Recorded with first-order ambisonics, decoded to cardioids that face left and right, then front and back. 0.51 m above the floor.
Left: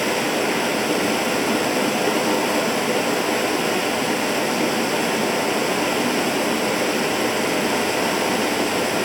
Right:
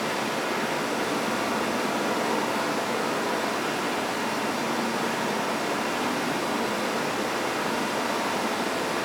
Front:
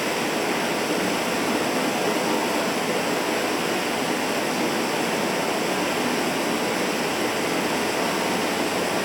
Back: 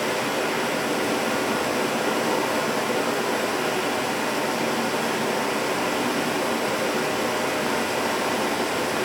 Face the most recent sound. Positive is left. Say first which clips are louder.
# left 6 dB, even
turn(degrees=75)